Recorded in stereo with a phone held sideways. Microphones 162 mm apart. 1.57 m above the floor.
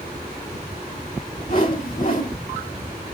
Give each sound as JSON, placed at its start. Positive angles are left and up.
{"t": 1.5, "sound": "a whoosh", "side_deg": 55, "distance_m": 1.9}